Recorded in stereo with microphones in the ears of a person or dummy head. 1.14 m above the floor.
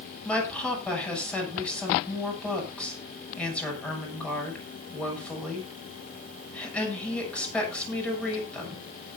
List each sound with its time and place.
0.2 s a woman speaking: 5° left (ahead or behind), 7 m